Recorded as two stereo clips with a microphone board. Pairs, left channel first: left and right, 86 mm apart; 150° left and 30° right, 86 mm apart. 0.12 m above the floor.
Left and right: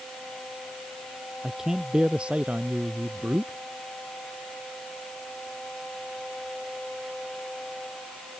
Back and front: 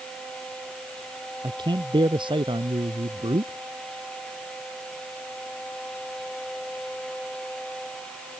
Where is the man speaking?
5° right; by 3.6 s 25° right.